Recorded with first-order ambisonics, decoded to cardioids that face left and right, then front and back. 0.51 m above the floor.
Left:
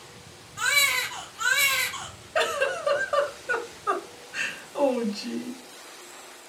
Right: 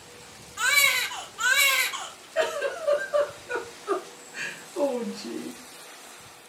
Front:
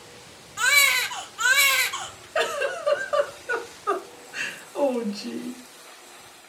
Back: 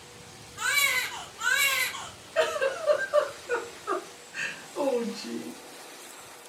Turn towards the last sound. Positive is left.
turn(degrees=50)